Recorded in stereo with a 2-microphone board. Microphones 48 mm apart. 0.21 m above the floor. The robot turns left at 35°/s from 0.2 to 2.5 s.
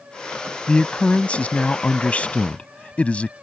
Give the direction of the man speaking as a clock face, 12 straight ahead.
8 o'clock.